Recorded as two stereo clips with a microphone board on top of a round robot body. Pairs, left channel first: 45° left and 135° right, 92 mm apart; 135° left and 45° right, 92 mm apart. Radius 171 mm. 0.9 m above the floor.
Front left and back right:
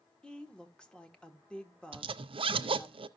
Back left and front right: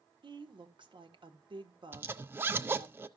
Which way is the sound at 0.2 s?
35° right.